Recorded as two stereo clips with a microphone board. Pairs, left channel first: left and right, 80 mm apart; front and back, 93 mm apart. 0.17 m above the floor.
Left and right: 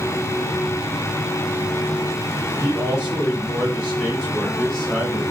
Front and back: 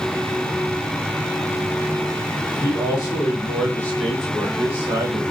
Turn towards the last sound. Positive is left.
turn(degrees=-170)